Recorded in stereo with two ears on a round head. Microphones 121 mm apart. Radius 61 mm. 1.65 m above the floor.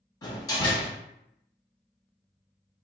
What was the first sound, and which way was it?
A door slam, 25° left (ahead or behind).